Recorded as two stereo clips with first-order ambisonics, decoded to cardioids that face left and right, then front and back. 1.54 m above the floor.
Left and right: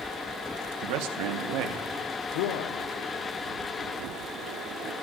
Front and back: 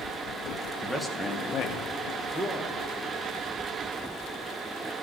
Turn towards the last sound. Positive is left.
turn(degrees=95)